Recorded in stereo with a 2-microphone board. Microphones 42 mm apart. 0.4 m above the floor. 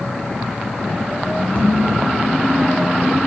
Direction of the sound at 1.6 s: 65° left (ahead or behind).